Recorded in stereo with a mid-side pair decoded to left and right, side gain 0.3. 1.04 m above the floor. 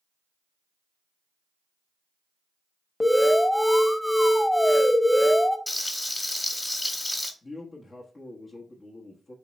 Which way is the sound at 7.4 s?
45° left.